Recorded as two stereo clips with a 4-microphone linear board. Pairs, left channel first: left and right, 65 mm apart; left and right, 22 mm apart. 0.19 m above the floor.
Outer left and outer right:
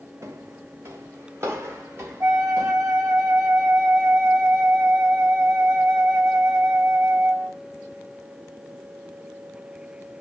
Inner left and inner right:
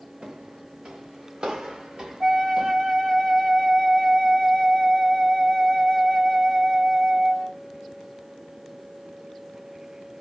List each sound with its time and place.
0.2 s footsteps: 50° right (ahead or behind), 0.7 m; by 3.2 s 40° right (ahead or behind), 2.5 m
2.2 s a flute: 55° right (ahead or behind), 3.5 m